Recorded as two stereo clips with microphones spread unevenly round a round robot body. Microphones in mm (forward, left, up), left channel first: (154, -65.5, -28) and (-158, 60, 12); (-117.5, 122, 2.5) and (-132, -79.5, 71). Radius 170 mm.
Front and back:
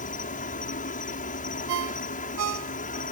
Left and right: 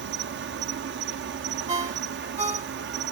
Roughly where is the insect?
Right.